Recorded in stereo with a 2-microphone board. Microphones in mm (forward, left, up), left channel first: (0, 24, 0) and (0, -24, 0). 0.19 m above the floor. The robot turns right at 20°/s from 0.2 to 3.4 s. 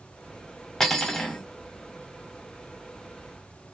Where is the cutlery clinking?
10° left (ahead or behind), 0.6 m.